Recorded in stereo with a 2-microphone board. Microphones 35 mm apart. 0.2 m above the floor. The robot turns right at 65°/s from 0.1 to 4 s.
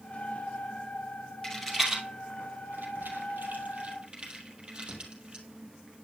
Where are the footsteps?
I don't hear footsteps.